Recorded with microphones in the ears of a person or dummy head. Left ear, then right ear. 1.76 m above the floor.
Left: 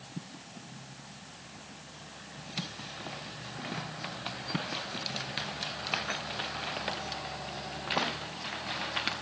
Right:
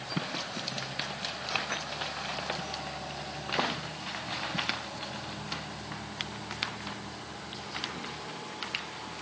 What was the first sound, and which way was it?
Only background noise.